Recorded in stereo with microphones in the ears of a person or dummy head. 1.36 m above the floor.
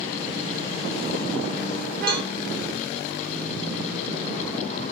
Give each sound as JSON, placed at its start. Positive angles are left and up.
{"t": 2.1, "sound": "a cowbell", "side_deg": -15, "distance_m": 0.7}